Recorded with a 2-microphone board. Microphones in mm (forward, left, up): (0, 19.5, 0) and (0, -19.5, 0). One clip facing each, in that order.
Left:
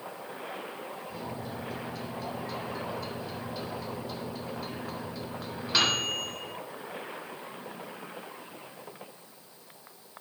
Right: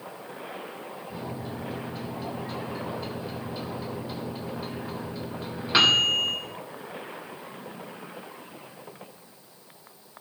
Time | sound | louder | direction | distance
1.1 | a microwave | right 4 dB | 25° right (ahead or behind) | 3 m